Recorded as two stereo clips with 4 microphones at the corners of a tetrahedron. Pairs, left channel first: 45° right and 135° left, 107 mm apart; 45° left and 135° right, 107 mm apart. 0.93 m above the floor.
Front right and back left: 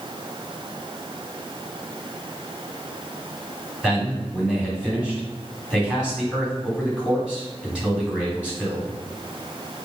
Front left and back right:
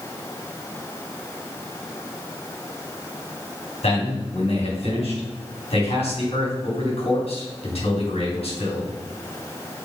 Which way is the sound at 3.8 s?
55° left.